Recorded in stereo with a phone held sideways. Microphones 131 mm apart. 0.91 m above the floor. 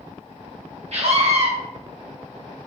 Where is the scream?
55° right (ahead or behind), 1.0 m.